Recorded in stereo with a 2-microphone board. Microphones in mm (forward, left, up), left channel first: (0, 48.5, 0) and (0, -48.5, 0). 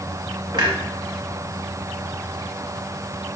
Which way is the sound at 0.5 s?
45° right (ahead or behind).